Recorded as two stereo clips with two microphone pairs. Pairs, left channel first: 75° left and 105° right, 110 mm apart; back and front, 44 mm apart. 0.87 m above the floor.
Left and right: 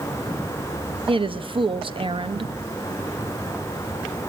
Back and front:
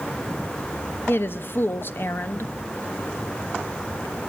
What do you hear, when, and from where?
1.1 s a woman speaking: 145° right, 0.9 m